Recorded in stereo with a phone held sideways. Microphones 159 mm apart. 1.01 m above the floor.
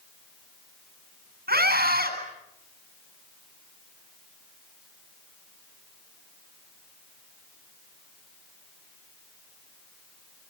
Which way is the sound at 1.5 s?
75° right (ahead or behind).